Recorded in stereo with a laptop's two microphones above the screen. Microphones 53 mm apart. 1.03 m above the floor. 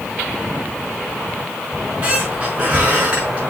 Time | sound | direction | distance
1.7 | a squeak | 25° right (ahead or behind) | 4.5 m